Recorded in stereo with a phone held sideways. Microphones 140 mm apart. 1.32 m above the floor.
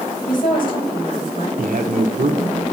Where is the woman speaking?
80° left, 6 m; by 1.5 s 85° left, 5.5 m.